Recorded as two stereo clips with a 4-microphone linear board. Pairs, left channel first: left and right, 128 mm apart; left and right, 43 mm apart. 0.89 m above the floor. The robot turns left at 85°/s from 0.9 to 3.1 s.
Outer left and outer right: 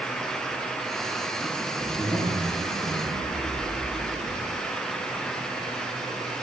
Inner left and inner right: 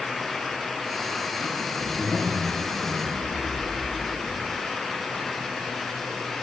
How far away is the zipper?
About 2.5 m.